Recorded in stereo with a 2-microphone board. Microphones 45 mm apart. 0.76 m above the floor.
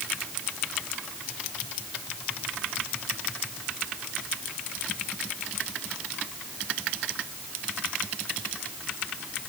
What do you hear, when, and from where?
Only background noise.